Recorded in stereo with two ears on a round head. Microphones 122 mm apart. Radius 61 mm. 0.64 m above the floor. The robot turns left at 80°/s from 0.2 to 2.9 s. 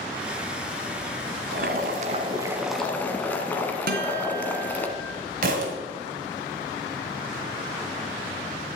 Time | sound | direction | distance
1.5 | boiling | 80° right | 1.4 m
3.9 | a guitar | 70° right (ahead or behind) | 2.5 m
5.4 | a thud | 70° right (ahead or behind) | 2 m